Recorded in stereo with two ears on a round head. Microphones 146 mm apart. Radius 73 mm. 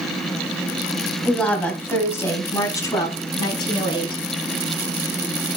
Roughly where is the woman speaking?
Centre.